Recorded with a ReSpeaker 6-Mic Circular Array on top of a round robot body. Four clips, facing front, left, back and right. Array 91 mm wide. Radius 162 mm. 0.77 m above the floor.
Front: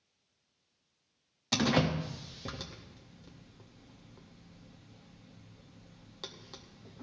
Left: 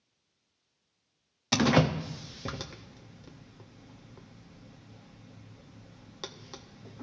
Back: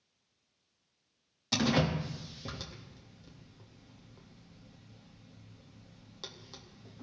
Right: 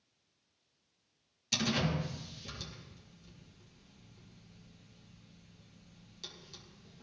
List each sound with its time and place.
1.5 s a door slam: 80° left, 0.7 m